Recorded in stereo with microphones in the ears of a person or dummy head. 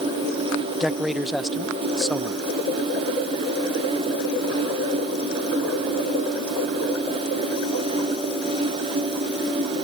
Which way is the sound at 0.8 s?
5° right (ahead or behind).